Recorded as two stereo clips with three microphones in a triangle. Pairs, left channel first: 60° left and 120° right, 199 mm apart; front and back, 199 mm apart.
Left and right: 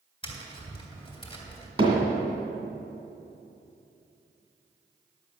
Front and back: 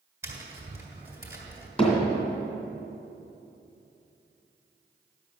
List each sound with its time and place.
0.2 s tapping: 110° left, 2 m
1.8 s hammering: 60° right, 2.5 m